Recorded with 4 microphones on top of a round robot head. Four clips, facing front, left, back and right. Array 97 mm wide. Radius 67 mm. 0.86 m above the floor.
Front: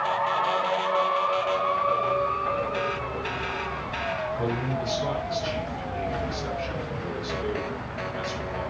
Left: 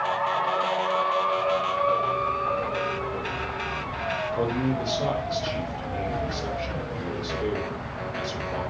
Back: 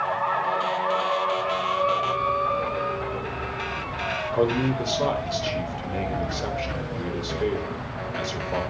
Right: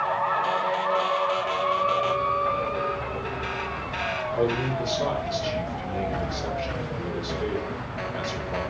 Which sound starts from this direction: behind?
A man speaking, at 4.3 s.